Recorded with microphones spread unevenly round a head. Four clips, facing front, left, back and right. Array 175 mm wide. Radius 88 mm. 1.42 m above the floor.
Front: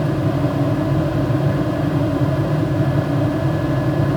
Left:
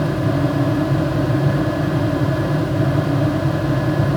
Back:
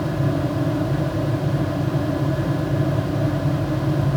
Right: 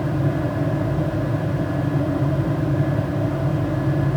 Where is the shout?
No shout in this recording.